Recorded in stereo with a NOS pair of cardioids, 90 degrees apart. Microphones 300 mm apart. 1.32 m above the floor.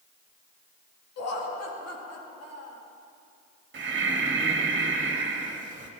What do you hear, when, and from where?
1.2 s laughter: 55° left, 3 m
3.7 s breathing: 40° right, 2 m